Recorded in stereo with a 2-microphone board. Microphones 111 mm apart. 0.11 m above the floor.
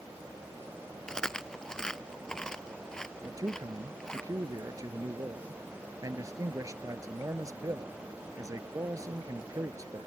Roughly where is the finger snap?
I don't hear a finger snap.